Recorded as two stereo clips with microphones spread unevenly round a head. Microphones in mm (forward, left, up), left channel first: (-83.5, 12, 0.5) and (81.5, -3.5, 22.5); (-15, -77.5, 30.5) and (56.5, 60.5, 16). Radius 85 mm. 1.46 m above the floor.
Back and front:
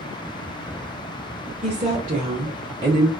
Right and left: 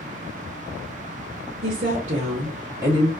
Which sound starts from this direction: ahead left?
A woman speaking, at 1.6 s.